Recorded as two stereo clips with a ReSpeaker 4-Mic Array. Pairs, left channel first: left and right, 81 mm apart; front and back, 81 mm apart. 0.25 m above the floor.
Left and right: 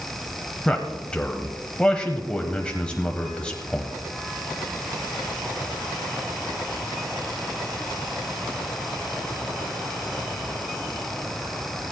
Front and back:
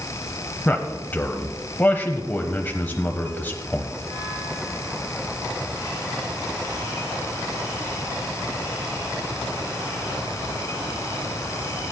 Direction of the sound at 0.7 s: 30° left.